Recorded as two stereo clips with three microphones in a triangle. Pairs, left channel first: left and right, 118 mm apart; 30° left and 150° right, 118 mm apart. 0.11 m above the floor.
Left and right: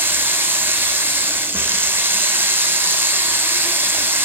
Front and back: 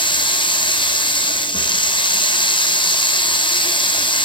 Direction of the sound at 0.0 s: 15° right.